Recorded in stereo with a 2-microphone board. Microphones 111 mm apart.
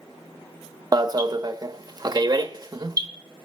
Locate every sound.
0.9 s an alarm: 35° right (ahead or behind), 1.0 m